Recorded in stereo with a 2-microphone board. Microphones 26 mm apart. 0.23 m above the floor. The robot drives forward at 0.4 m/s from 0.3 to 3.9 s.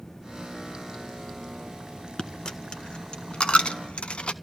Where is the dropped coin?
35° left (ahead or behind), 1.3 m; by 4.3 s 55° left (ahead or behind), 0.9 m.